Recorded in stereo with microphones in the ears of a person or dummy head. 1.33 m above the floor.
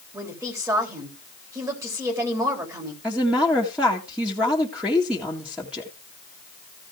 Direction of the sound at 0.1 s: 5° right (ahead or behind).